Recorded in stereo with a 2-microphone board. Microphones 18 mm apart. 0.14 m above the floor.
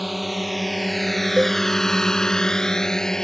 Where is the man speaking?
I don't hear a man speaking.